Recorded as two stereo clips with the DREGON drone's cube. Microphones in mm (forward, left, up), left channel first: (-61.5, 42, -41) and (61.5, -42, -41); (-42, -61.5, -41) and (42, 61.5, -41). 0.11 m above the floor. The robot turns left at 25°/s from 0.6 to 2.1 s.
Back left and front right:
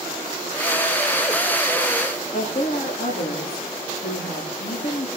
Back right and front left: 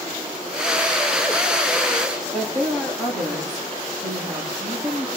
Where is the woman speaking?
145° left, 9 m.